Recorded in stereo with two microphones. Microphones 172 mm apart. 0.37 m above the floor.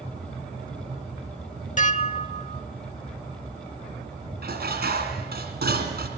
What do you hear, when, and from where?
1.8 s dishes clattering: 45° left (ahead or behind), 0.7 m
4.4 s dishes clattering: 65° right (ahead or behind), 2.5 m